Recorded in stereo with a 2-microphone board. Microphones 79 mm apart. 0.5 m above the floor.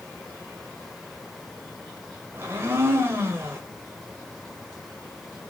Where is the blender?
30° right (ahead or behind), 1.6 m.